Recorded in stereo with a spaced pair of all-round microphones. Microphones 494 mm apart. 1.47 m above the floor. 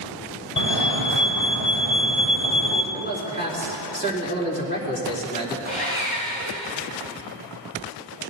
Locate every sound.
0.6 s a fire alarm: 55° left (ahead or behind), 1.7 m
2.9 s a man speaking: 20° left (ahead or behind), 3.5 m
5.7 s sawing: 70° left (ahead or behind), 6 m